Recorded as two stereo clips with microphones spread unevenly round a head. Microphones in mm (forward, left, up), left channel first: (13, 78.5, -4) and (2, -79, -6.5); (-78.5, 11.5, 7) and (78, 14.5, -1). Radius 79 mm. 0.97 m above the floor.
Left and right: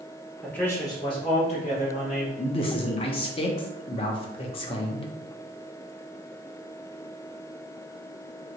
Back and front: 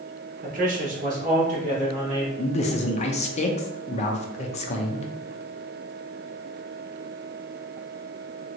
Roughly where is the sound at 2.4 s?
Behind left.